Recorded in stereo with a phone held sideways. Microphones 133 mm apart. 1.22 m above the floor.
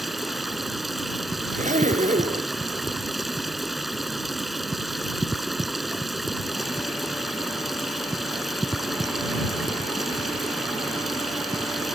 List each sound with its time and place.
0.0 s running water: centre (ahead or behind)
1.5 s a zipper: 70° right (ahead or behind)